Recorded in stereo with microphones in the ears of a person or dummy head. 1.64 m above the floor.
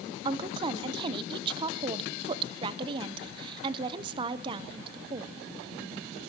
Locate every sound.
0.2 s a woman speaking: 25° right (ahead or behind), 0.8 m